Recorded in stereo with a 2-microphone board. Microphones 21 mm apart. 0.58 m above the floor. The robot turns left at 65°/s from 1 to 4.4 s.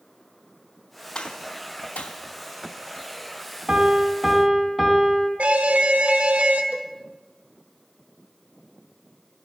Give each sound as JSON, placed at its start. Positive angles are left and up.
{"t": 1.1, "sound": "a gunshot", "side_deg": 30, "distance_m": 2.5}
{"t": 3.7, "sound": "a piano", "azimuth_deg": -140, "distance_m": 2.5}
{"t": 5.4, "sound": "an alarm", "side_deg": -70, "distance_m": 1.9}
{"t": 6.7, "sound": "a cowbell", "side_deg": -70, "distance_m": 0.9}